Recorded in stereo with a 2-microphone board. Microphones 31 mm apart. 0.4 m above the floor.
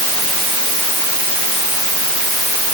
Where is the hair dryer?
No hair dryer in this recording.